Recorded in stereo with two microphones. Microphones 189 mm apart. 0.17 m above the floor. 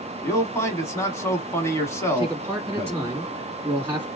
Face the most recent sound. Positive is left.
turn(degrees=-10)  # may be behind; listen again after turning